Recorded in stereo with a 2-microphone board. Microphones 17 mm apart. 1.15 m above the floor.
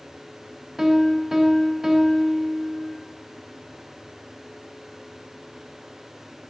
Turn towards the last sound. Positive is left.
turn(degrees=-20)  # may be behind; listen again after turning